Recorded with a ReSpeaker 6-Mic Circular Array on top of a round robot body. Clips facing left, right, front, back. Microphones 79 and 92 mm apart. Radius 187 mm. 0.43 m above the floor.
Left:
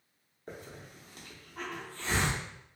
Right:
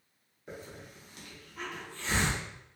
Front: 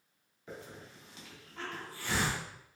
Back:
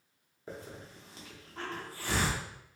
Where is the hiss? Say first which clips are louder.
Right 1 dB, back 2 dB; 135° left, 1.3 m.